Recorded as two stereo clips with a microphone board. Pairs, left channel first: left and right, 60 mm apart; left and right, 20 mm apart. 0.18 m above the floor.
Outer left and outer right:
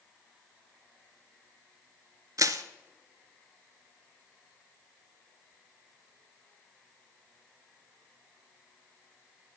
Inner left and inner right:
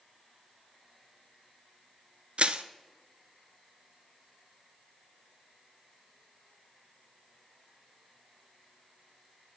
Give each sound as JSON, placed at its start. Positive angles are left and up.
{"t": 2.4, "sound": "crushing", "side_deg": -70, "distance_m": 0.6}